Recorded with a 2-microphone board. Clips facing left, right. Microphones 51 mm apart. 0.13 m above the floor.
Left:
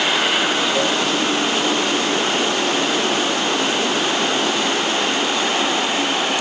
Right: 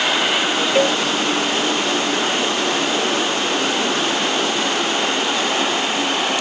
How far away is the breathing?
No breathing in this recording.